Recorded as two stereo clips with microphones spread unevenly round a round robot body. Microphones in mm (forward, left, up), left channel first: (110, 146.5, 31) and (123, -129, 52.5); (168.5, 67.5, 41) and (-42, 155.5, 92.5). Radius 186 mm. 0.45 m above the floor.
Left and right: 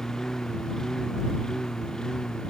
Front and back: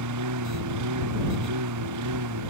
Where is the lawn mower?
Straight behind.